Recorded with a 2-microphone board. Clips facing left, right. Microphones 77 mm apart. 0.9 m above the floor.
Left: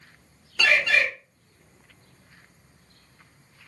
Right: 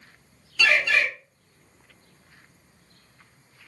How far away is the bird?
About 1.2 m.